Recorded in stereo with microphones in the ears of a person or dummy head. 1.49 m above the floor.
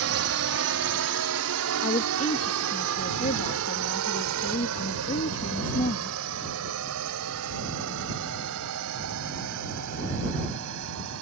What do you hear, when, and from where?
0.0 s a drone: 70° right (ahead or behind); by 11.2 s 75° right (ahead or behind)
1.8 s a woman speaking: 30° left (ahead or behind)